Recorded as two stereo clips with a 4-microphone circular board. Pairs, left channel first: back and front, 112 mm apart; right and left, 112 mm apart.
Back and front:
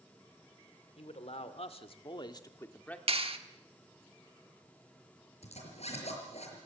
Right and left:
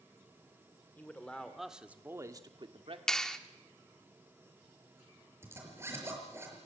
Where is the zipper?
160° left, 5.5 m.